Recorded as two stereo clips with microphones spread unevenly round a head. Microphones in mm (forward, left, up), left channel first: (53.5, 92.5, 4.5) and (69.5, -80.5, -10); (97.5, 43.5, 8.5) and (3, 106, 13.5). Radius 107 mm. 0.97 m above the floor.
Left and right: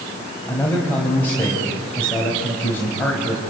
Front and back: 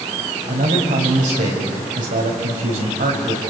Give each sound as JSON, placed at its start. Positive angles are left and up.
{"t": 0.5, "sound": "a man speaking", "azimuth_deg": 175, "distance_m": 4.5}